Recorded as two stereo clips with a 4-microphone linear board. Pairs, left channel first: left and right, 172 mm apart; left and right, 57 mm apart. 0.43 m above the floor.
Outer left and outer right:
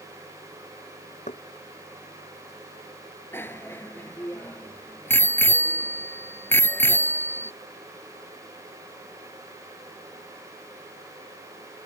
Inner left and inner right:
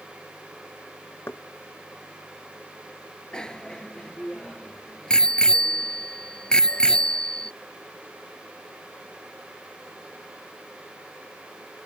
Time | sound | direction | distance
1.3 | knocking | 45° left (ahead or behind) | ?
3.3 | a bicycle bell | 10° left (ahead or behind) | ?